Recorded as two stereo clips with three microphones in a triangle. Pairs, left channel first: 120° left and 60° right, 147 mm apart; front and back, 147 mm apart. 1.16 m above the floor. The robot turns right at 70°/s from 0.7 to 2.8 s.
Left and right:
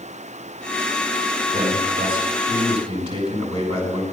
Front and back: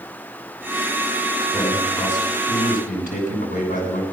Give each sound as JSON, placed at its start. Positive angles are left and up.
{"t": 1.5, "sound": "a man speaking", "azimuth_deg": -95, "distance_m": 6.0}